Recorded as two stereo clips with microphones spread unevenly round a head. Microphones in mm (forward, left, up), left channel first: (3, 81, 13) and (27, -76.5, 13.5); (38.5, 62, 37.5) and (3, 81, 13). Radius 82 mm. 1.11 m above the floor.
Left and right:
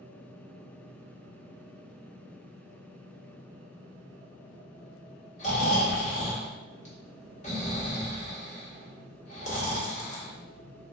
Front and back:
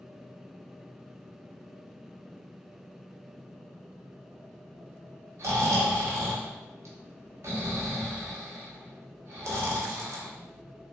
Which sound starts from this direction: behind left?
Snoring, at 5.4 s.